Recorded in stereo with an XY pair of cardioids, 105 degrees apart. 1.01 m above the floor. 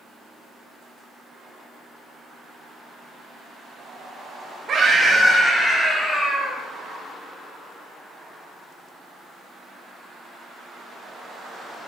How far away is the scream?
About 1.2 m.